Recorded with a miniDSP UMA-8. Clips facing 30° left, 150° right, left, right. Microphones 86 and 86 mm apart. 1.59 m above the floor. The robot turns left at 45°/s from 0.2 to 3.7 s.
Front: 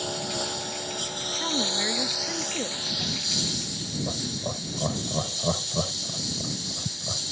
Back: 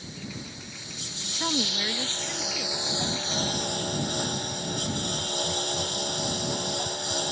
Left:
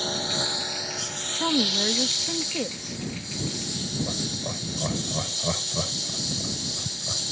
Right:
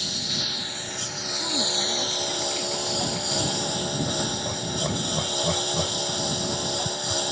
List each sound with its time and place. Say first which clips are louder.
0.0 s a lawn mower: front 9 dB, left 5 dB; 40° left; by 7.3 s 120° right
1.4 s a woman speaking: even, left 5 dB; 135° left; by 3.0 s 60° left
4.1 s laughter: back 1 dB, right 4 dB; straight ahead